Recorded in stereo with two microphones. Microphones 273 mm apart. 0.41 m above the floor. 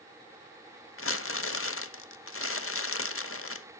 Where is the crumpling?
50° left (ahead or behind), 0.7 m.